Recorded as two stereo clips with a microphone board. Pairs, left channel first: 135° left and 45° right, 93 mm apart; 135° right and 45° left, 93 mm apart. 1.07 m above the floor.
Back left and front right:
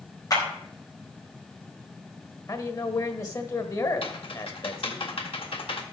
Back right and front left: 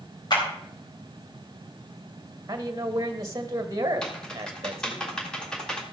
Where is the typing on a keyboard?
145° left, 1.9 m.